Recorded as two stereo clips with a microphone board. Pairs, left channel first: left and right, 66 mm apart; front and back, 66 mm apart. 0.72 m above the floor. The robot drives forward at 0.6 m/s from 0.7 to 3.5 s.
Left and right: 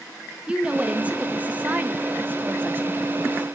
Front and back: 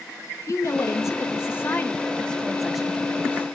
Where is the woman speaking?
25° right, 1.6 m; by 3.4 s 130° right, 1.1 m.